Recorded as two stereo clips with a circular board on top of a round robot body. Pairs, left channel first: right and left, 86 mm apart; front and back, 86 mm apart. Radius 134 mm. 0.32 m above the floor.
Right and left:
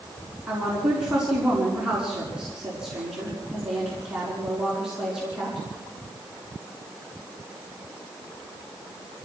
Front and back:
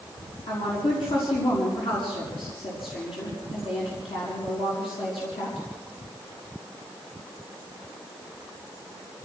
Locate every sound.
0.5 s a woman speaking: 10° left, 6 m